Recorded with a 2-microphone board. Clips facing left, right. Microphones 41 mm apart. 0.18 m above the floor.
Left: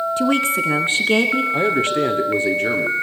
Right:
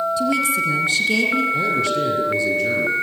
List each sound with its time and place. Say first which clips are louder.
0.2 s a woman speaking: left 4 dB; 45° left (ahead or behind), 2.0 m; by 1.4 s 30° left (ahead or behind), 2.5 m
1.5 s a man speaking: left 2 dB; 40° left (ahead or behind), 3.5 m